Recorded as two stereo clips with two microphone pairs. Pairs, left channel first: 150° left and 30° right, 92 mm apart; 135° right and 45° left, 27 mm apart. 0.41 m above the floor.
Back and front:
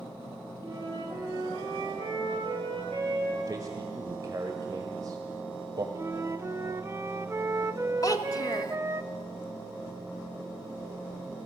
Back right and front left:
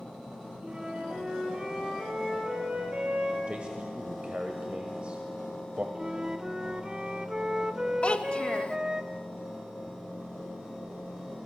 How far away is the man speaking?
About 1.5 m.